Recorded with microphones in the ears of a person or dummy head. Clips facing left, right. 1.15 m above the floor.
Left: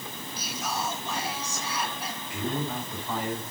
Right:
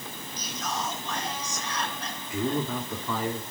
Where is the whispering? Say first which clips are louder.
Even; 10° left (ahead or behind), 2 m.